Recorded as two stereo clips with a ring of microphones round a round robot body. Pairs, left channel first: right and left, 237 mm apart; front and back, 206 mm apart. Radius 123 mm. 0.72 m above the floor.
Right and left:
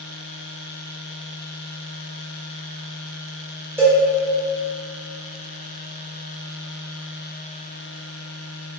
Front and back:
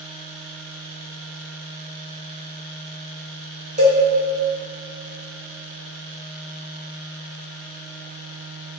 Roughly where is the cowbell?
Behind.